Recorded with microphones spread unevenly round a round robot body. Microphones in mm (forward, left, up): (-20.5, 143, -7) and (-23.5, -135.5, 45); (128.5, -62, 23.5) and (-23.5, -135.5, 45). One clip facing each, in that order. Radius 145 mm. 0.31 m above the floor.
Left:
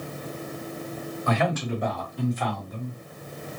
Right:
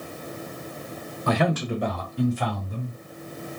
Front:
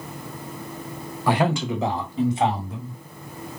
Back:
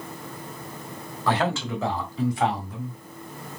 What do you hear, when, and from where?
1.3 s a man speaking: 40° right, 1.4 m; by 3.0 s 30° right, 2 m